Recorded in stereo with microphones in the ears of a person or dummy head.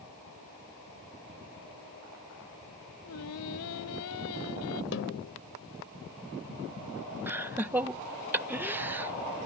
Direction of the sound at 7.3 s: 10° right (ahead or behind).